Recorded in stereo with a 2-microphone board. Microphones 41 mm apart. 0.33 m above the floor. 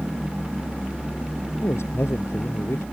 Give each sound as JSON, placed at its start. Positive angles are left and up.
{"t": 1.6, "sound": "a man speaking", "side_deg": 80}